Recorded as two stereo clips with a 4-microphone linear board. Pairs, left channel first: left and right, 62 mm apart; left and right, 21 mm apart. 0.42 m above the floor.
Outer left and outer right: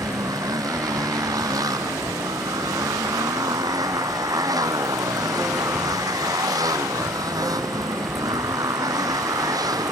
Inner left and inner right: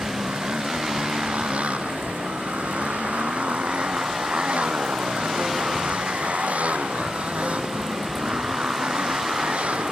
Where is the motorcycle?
80° right.